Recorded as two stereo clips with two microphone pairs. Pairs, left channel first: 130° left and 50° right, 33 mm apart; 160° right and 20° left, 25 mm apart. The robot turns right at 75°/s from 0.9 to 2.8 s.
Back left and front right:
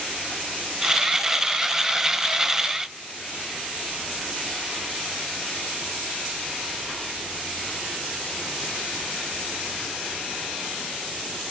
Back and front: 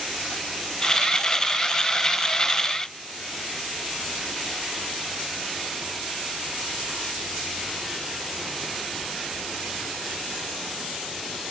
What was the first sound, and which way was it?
Only background noise.